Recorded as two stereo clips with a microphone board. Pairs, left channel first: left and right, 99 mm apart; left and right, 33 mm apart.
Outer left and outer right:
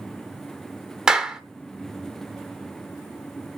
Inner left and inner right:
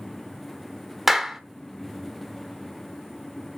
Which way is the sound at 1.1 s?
5° right (ahead or behind).